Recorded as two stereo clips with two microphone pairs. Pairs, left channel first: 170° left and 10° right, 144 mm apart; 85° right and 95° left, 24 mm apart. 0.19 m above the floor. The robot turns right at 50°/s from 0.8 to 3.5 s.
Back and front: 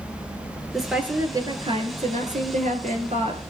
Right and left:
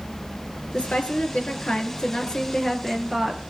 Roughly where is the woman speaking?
Right.